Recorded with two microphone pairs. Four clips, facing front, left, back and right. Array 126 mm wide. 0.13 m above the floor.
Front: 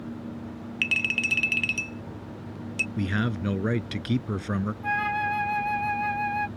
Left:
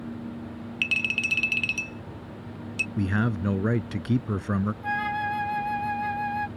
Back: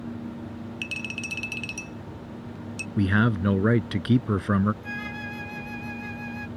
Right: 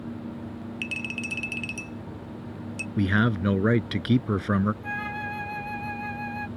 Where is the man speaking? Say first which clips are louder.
Right 3 dB, back 6 dB; 130° right.